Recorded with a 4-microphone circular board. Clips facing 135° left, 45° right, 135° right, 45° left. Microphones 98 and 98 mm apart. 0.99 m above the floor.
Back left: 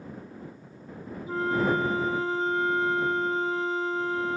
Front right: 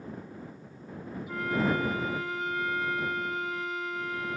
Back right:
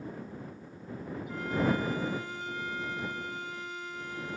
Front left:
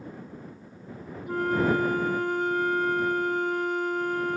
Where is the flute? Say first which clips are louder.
Back left 3 dB, front left 6 dB; 80° left.